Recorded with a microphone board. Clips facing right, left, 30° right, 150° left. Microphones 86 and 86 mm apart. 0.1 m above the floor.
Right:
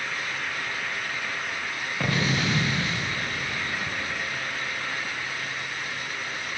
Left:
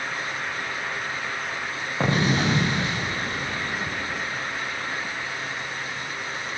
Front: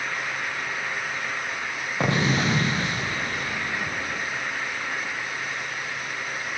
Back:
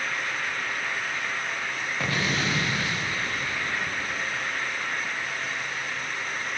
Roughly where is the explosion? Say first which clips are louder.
Left 4 dB, front 5 dB; ahead left.